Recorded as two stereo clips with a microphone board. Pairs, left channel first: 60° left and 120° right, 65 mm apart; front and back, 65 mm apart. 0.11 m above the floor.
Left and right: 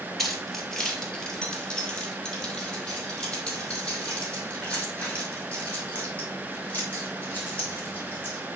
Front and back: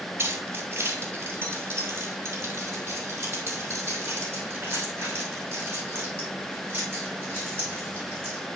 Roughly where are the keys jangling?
Behind left.